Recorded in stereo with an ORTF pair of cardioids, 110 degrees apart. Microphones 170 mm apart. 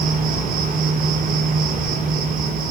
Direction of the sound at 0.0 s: 55° right.